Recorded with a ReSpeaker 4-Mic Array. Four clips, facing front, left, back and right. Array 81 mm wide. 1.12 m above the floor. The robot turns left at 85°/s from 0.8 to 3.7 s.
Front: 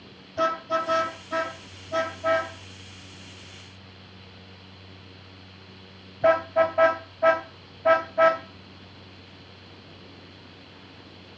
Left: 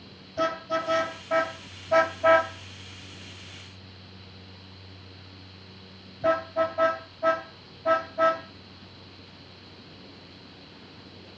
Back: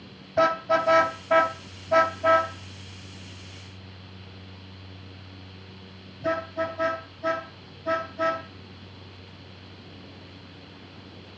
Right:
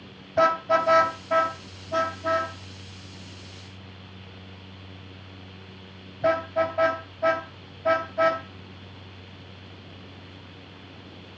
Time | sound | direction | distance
0.4 | a car horn | 130° right | 3.5 m